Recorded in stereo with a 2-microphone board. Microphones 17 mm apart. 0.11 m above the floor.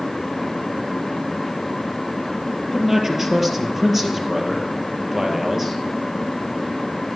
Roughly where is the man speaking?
Right.